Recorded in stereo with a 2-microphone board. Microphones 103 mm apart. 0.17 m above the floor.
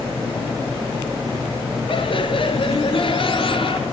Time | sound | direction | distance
1.9 | laughter | 60° left (ahead or behind) | 3 m